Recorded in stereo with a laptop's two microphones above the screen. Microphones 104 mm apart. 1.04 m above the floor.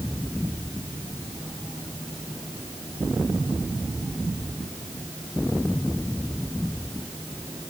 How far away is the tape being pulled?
No tape being pulled in this recording.